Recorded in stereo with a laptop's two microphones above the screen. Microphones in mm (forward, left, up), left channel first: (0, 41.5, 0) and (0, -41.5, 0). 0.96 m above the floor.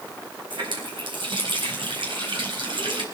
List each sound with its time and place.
0.5 s a running tap: 75° right (ahead or behind), 4.5 m